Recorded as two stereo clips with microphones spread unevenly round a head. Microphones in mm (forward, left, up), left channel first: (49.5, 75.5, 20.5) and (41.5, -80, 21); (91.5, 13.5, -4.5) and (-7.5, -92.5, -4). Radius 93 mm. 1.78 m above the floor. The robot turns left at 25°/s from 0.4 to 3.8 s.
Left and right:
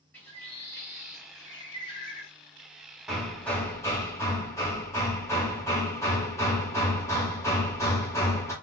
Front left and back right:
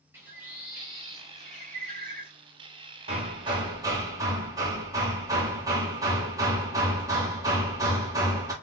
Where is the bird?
160° left, 0.8 m; by 2.3 s 115° left, 0.8 m.